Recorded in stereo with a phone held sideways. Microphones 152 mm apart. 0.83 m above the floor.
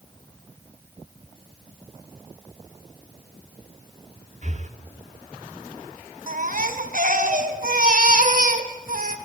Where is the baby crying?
60° right (ahead or behind), 2 m.